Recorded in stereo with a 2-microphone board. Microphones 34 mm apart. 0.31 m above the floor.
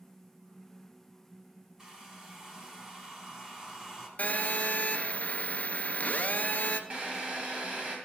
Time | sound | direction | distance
1.8 | a hair dryer | 20° right (ahead or behind) | 1.4 m
4.2 | a phone buzzing | 55° left (ahead or behind) | 0.7 m
6.9 | a drill | 35° right (ahead or behind) | 1.9 m